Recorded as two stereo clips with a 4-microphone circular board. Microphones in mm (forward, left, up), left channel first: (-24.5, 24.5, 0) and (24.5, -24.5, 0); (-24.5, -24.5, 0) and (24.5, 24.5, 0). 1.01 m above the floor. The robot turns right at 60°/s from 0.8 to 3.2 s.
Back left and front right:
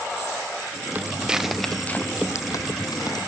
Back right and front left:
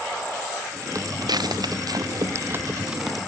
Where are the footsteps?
15° left; by 3.3 s 140° left.